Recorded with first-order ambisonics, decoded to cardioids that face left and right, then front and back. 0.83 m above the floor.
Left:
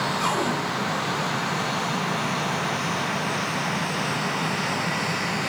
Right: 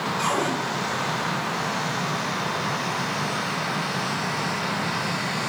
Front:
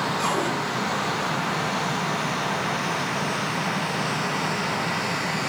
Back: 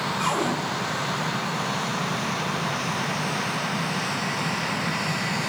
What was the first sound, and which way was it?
A cupboard door, 65° right.